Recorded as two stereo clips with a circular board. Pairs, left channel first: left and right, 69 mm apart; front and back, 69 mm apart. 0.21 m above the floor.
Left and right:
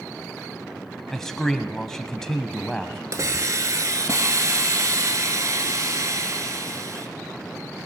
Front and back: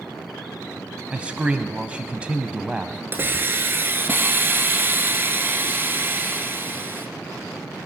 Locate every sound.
1.1 s a man speaking: 160° left, 1.0 m
3.1 s a hiss: 125° right, 1.2 m